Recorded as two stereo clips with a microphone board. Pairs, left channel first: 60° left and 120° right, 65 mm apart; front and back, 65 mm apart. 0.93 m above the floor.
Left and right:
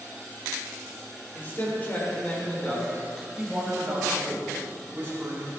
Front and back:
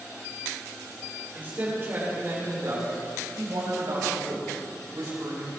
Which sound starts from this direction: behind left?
A man speaking, at 1.3 s.